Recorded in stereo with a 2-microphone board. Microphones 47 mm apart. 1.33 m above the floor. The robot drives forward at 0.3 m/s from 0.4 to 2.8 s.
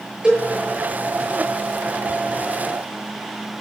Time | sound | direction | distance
0.2 | a cowbell | 20° right (ahead or behind) | 8 m